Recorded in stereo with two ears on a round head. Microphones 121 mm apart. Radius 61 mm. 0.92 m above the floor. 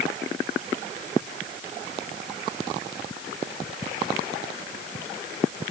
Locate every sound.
Only background noise.